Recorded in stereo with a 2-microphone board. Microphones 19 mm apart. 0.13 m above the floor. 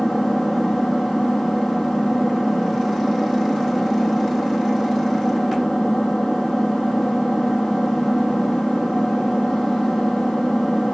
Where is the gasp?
I don't hear a gasp.